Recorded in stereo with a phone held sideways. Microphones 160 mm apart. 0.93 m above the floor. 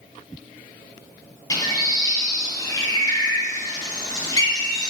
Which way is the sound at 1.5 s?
25° left (ahead or behind).